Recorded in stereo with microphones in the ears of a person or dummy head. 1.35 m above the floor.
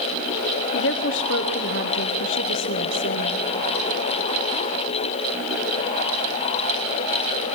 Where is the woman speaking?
60° left (ahead or behind), 0.7 m.